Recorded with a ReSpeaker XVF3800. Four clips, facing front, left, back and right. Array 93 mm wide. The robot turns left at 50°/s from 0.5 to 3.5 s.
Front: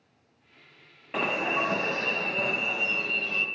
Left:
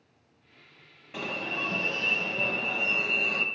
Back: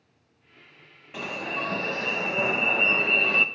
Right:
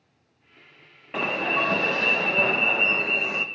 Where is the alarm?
45° right, 0.5 m; by 3.5 s 165° right, 0.5 m.